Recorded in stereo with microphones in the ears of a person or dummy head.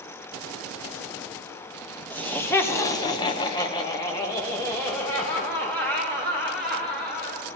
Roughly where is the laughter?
Centre.